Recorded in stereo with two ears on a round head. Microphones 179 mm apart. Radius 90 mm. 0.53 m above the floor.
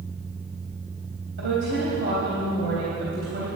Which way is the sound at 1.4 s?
60° right (ahead or behind).